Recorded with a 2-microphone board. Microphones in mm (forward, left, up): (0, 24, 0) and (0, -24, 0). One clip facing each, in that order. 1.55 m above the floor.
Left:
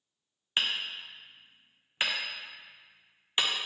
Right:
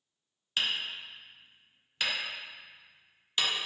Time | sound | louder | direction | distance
0.6 | hammering | left 1 dB | 25° left (ahead or behind) | 0.5 m